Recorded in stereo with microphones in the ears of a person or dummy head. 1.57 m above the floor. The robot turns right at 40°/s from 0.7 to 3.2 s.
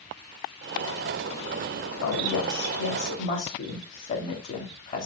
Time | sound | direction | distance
2.0 | a woman speaking | 90° left | 3 m